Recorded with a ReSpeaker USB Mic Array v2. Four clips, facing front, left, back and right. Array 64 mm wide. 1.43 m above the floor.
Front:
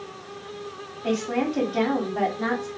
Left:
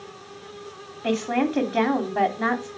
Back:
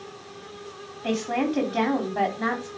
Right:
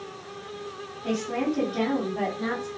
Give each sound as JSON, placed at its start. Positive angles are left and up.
{"t": 1.0, "sound": "a woman speaking", "azimuth_deg": 90, "distance_m": 3.0}